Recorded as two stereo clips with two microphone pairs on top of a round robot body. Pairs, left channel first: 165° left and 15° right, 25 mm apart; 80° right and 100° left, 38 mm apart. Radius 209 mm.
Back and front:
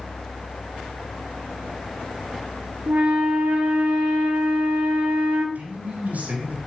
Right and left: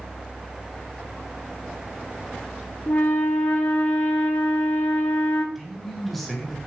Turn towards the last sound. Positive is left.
turn(degrees=5)